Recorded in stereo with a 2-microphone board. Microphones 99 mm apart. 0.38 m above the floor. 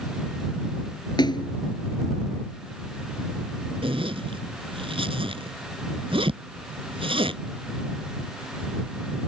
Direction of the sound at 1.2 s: 45° left (ahead or behind).